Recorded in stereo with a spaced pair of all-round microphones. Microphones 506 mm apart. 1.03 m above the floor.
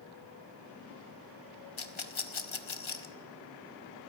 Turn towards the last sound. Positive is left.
turn(degrees=75)  # may be behind; listen again after turning